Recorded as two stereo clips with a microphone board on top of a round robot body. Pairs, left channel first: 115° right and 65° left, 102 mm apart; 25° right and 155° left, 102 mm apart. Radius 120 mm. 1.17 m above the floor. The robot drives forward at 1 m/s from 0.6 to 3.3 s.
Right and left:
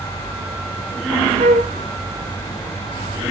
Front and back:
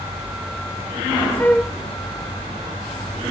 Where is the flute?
50° left, 0.9 m; by 1.7 s 80° left, 0.9 m.